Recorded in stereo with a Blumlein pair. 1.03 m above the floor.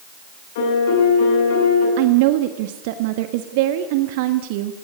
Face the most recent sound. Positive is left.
turn(degrees=-50)